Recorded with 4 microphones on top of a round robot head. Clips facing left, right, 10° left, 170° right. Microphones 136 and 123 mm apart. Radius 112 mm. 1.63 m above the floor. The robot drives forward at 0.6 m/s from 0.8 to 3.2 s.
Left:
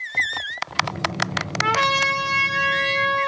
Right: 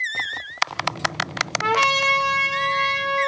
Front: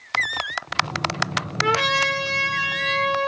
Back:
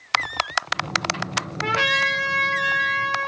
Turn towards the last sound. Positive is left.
turn(degrees=-30)